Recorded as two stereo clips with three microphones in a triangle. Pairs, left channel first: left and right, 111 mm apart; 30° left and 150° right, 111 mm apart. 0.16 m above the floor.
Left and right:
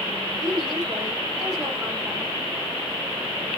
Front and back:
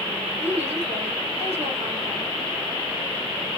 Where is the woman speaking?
175° right, 6.5 m; by 2.3 s 170° right, 8 m.